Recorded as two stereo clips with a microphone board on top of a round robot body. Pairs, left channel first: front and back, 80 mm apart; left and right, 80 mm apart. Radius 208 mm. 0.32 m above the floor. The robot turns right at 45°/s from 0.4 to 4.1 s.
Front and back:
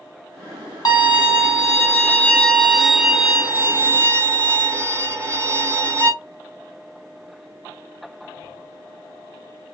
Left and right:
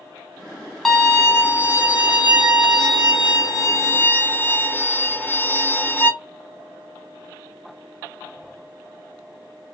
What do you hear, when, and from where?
0.8 s a violin: straight ahead, 1.8 m; by 6.1 s 145° left, 1.8 m